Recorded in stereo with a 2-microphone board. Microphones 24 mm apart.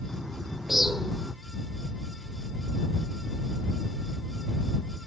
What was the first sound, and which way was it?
A bird, 10° right (ahead or behind).